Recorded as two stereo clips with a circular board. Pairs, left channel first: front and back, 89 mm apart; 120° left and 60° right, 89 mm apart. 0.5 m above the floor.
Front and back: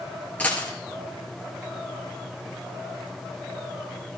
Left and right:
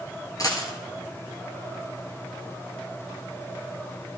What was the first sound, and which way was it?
A dropped coin, 75° left.